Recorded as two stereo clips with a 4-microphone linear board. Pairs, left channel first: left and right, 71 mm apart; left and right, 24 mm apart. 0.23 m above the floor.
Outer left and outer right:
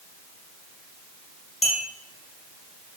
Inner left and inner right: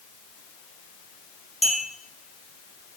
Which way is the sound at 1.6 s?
Centre (ahead or behind).